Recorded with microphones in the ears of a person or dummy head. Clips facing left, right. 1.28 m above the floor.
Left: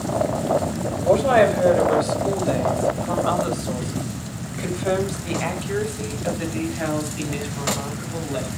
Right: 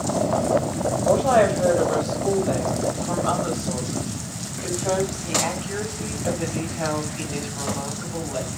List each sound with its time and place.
1.0 s a woman speaking: 35° left (ahead or behind), 5 m; by 8.5 s 20° left (ahead or behind), 8.5 m